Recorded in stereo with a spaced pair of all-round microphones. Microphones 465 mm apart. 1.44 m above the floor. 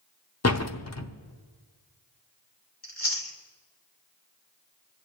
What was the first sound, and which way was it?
A door slam, 35° left (ahead or behind).